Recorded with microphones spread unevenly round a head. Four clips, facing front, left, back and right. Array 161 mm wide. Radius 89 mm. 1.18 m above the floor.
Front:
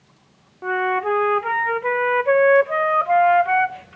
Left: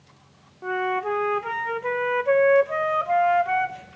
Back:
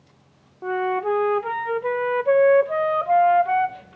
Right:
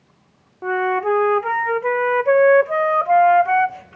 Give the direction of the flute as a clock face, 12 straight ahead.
3 o'clock.